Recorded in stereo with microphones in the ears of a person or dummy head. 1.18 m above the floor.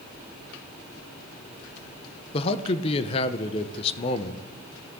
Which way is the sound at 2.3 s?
35° left (ahead or behind).